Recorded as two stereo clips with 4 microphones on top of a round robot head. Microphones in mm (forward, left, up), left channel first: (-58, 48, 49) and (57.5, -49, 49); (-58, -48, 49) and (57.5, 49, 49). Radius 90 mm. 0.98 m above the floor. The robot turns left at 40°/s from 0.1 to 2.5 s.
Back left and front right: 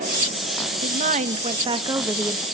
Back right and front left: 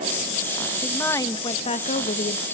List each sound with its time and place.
0.8 s a woman speaking: 60° right, 1.4 m; by 2.5 s 125° right, 1.4 m